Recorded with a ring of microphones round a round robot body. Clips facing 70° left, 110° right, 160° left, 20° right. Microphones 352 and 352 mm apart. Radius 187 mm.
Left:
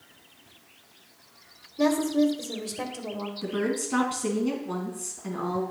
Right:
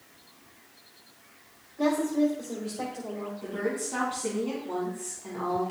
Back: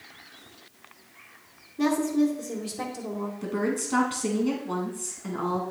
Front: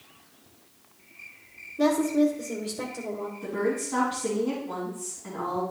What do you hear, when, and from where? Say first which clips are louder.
1.8 s a woman speaking: left 2 dB, front 1 dB; 80° left, 2 m
3.4 s a woman speaking: left 4 dB, front 1 dB; 120° left, 3.5 m